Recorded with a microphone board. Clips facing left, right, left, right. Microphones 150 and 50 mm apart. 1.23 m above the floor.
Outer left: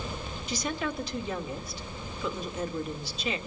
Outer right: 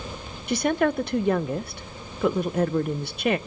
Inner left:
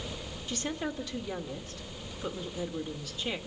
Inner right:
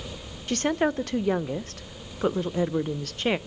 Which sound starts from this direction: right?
A woman speaking, at 0.5 s.